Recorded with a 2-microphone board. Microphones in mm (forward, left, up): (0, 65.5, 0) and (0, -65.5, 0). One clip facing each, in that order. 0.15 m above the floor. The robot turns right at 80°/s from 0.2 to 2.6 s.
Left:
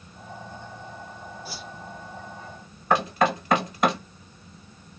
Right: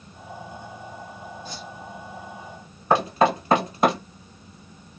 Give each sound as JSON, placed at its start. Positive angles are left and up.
{"t": 1.4, "sound": "a whoosh", "side_deg": 10, "distance_m": 2.0}
{"t": 2.9, "sound": "knocking", "side_deg": -25, "distance_m": 2.5}